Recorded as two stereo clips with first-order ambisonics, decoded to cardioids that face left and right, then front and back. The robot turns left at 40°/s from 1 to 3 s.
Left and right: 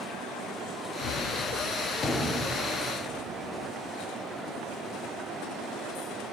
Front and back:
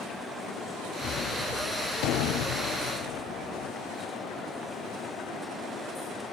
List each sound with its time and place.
1.0 s a gunshot: 55° left, 0.9 m; by 3.7 s 25° right, 0.9 m